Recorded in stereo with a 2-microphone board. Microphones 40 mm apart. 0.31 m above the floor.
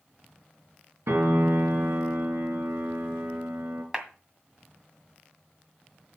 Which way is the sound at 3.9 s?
15° right (ahead or behind).